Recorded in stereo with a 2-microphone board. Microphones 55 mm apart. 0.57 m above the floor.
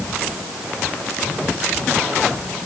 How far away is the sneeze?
I don't hear a sneeze.